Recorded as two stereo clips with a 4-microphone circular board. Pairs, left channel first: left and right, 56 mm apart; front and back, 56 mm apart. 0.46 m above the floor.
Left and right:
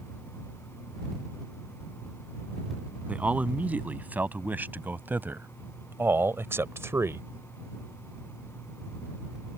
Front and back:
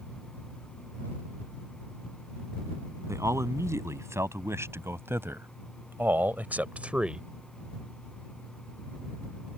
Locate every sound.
3.1 s a man speaking: 150° right; by 7.2 s 105° right